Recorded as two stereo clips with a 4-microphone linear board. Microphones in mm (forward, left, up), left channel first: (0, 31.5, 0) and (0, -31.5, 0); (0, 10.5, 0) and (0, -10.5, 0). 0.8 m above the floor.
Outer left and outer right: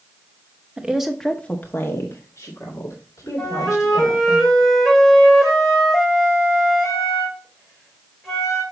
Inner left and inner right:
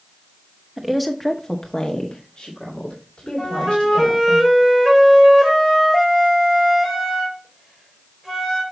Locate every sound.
0.8 s a woman speaking: 15° right (ahead or behind), 1.1 m; by 4.4 s 60° left (ahead or behind), 3.5 m
3.4 s a flute: centre (ahead or behind), 3 m